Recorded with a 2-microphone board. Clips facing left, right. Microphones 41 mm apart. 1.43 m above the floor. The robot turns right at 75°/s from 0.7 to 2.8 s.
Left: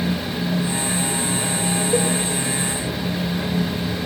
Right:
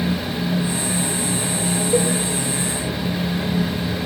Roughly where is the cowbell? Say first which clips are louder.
Right 2 dB; centre.